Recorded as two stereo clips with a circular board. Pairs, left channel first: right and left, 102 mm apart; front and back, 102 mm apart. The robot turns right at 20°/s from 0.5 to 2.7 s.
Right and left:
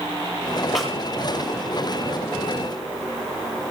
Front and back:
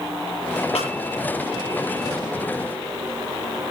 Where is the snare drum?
Straight ahead, 7.5 m; by 0.9 s 5° left, 7.5 m.